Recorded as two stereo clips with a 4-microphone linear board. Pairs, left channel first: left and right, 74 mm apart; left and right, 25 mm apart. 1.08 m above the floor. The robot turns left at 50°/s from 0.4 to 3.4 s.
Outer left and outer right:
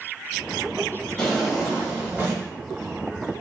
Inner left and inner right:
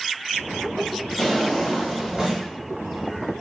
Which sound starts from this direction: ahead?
A drawer, at 1.2 s.